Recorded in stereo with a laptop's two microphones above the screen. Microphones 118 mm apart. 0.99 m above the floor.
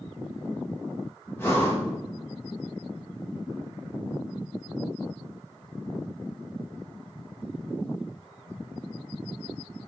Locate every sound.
1.4 s breathing: 20° left (ahead or behind), 0.8 m